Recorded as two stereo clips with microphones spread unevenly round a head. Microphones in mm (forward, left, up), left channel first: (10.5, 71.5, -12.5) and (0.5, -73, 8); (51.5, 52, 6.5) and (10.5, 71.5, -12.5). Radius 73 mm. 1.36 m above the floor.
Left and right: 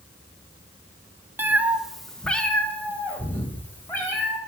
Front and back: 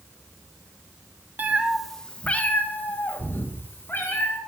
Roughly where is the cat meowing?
Behind right.